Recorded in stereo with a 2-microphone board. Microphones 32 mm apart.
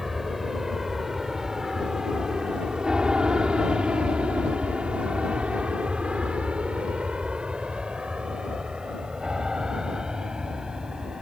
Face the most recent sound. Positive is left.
turn(degrees=-25)  # may be behind; listen again after turning